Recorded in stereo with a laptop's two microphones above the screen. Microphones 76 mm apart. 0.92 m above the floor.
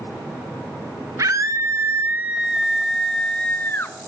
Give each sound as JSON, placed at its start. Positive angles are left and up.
{"t": 1.2, "sound": "a scream", "side_deg": -45, "distance_m": 1.3}